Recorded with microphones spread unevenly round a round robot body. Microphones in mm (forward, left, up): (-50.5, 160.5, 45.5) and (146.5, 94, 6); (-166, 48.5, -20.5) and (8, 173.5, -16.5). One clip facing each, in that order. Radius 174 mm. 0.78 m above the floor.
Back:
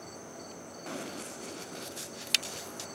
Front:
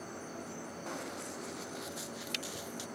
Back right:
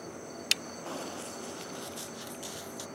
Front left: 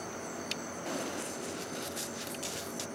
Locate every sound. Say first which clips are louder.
0.9 s running footsteps: back 4 dB, front left 3 dB; 105° left; by 2.9 s 100° left